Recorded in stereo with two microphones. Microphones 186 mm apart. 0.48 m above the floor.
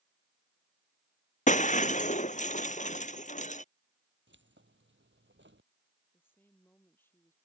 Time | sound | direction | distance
1.5 | breaking glass | 40° left (ahead or behind) | ?
4.3 | keys jangling | 85° right | ?
6.1 | a woman speaking | 10° left (ahead or behind) | ?